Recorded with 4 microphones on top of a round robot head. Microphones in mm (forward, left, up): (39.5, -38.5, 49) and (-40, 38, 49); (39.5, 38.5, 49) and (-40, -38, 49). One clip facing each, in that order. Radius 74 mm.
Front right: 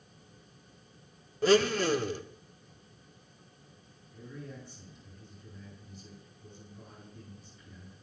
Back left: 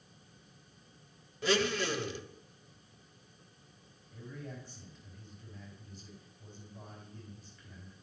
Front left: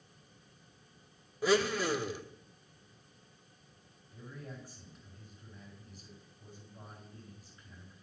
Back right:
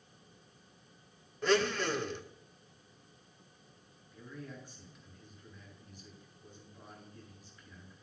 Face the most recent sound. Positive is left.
turn(degrees=100)